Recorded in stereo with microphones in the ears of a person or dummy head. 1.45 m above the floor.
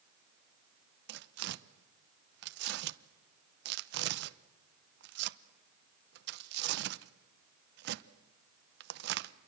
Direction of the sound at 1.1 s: 65° right (ahead or behind).